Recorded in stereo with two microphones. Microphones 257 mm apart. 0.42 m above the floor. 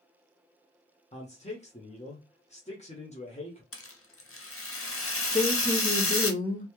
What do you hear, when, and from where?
1.1 s a man speaking: 25° left (ahead or behind), 1.0 m
3.7 s a rattle: 55° left (ahead or behind), 0.7 m
5.3 s a woman speaking: 30° left (ahead or behind), 0.9 m